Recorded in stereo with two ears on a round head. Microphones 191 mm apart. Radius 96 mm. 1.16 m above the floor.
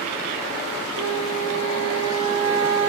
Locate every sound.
0.9 s a flute: 65° right (ahead or behind), 5 m